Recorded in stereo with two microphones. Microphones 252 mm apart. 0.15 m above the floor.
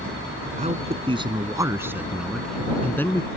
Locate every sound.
0.6 s a man speaking: 30° right (ahead or behind); by 3.3 s 10° left (ahead or behind)